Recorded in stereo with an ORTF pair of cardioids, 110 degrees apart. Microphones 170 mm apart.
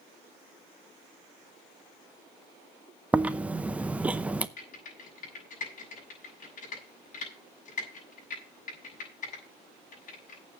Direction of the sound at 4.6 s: 50° left.